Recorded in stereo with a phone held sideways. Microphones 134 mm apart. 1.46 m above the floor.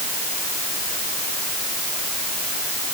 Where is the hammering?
No hammering in this recording.